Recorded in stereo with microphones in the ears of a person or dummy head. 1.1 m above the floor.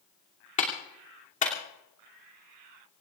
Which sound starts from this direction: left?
A clap, at 0.6 s.